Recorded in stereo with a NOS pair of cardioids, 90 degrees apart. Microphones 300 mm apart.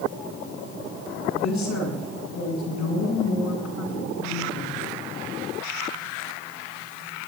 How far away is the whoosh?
I don't hear a whoosh.